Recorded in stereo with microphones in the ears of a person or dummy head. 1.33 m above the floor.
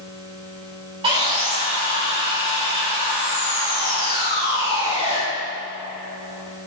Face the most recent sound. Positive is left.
turn(degrees=-25)  # may be behind; listen again after turning